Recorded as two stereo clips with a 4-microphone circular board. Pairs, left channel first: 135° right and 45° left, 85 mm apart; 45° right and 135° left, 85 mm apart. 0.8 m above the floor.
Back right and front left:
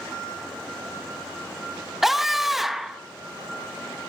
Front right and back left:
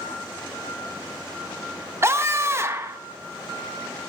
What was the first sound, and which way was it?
A scream, 130° left.